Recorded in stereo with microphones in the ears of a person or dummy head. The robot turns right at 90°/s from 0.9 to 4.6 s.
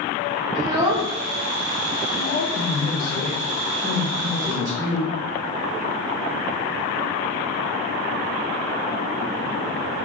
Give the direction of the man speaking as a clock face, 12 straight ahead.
11 o'clock.